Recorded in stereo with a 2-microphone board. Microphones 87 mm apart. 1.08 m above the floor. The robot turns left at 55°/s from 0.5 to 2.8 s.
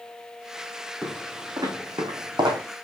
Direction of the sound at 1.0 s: 25° right (ahead or behind).